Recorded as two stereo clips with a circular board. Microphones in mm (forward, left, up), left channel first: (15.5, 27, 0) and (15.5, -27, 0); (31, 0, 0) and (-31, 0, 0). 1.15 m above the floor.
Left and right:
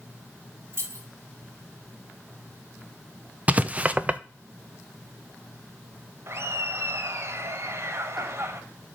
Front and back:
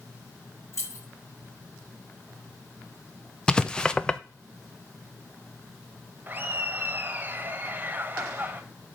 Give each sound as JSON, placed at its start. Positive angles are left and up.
{"t": 0.7, "sound": "keys jangling", "azimuth_deg": -50, "distance_m": 2.5}
{"t": 3.5, "sound": "writing", "azimuth_deg": -65, "distance_m": 0.5}
{"t": 6.3, "sound": "laughter", "azimuth_deg": -120, "distance_m": 1.4}